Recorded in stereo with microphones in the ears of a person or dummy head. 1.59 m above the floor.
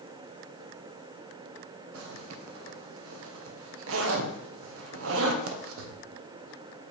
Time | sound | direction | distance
1.9 | a zipper | 80° right | 1.0 m